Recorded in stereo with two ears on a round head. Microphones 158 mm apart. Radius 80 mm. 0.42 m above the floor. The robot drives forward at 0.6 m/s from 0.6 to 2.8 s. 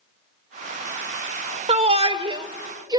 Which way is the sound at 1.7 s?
35° right (ahead or behind).